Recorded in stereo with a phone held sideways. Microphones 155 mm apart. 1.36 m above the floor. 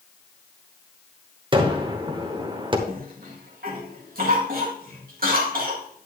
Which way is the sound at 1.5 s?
30° right (ahead or behind).